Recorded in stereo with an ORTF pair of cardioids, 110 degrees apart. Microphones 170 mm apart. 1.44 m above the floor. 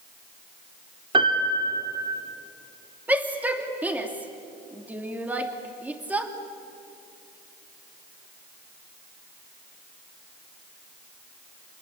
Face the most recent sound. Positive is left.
turn(degrees=-10)